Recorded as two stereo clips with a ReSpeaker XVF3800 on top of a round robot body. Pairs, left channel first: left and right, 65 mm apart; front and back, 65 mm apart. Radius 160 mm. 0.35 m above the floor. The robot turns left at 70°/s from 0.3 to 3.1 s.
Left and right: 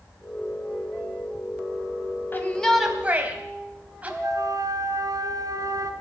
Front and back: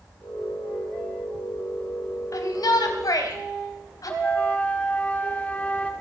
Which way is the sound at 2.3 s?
35° left.